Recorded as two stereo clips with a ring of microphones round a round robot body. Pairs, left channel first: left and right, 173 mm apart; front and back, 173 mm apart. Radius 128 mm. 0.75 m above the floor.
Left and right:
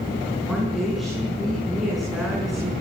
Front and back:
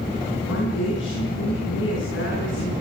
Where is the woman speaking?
Straight ahead, 8 m.